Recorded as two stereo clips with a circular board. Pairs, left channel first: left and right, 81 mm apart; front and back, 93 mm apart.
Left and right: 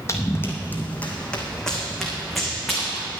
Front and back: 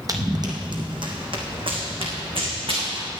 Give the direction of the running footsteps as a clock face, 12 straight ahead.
7 o'clock.